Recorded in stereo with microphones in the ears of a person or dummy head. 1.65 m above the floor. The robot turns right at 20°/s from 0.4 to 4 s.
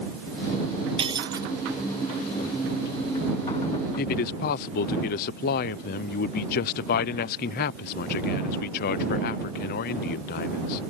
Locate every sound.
1.0 s breaking glass: 25° right (ahead or behind); by 1.5 s 15° right (ahead or behind)
4.0 s a man speaking: 50° left (ahead or behind)